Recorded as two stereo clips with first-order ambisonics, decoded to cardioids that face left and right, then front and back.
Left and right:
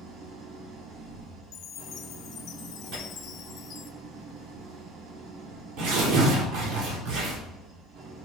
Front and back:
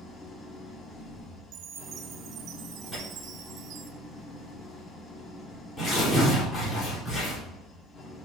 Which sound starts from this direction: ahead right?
An engine running, at 0.0 s.